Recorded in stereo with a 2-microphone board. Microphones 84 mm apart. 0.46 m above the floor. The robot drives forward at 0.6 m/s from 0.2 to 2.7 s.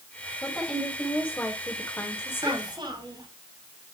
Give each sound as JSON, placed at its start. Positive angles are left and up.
{"t": 0.4, "sound": "a woman speaking", "side_deg": 15, "distance_m": 2.5}
{"t": 2.4, "sound": "a child speaking", "side_deg": -65, "distance_m": 3.0}